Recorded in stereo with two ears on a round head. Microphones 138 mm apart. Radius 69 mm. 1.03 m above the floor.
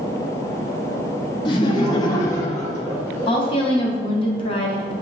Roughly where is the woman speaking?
Left.